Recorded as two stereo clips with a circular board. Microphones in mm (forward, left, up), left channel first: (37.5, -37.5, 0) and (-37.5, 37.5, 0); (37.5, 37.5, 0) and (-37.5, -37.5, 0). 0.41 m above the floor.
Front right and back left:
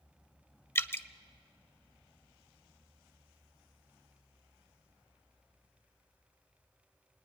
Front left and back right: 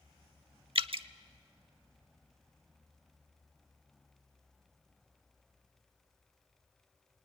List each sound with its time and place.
0.8 s dripping: 110° right, 0.7 m